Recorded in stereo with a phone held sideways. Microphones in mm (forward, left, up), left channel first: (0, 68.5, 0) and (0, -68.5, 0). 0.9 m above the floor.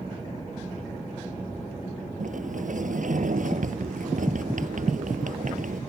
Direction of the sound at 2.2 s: 70° right (ahead or behind).